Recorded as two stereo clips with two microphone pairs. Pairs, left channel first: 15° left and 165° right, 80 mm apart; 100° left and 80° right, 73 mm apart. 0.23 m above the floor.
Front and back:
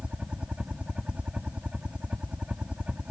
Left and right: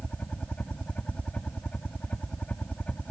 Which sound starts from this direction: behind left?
A helicopter, at 0.0 s.